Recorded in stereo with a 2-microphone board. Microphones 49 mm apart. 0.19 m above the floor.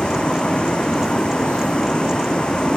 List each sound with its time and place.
0.0 s a vehicle: 20° left (ahead or behind)